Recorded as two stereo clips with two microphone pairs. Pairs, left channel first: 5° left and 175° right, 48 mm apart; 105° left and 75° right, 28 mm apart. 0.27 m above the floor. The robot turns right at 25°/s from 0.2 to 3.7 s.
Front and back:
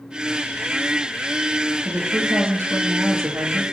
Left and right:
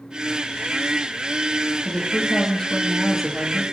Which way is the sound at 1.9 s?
160° left.